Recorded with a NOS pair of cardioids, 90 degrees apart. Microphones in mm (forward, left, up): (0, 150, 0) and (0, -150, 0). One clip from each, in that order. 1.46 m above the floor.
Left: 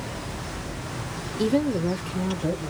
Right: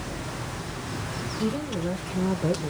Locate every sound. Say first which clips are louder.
1.4 s a woman speaking: left 8 dB; 45° left, 0.9 m; by 2.7 s 25° right, 0.7 m